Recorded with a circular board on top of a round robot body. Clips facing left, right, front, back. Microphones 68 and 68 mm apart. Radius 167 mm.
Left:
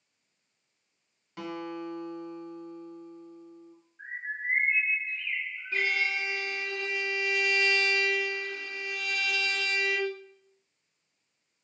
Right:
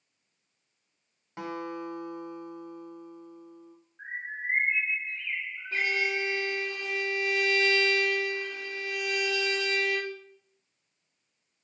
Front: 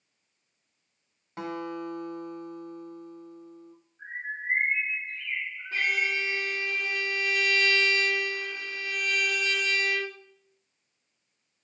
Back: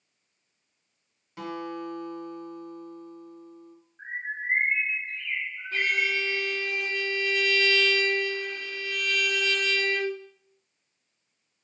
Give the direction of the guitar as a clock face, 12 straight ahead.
1 o'clock.